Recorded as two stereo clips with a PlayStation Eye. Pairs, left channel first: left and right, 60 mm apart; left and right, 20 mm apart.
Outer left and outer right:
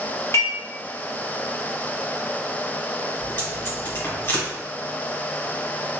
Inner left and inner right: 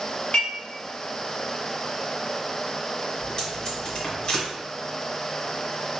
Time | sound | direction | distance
0.3 | dishes clattering | 60° left (ahead or behind) | 1.2 m
3.2 | tape being pulled | 40° left (ahead or behind) | 1.9 m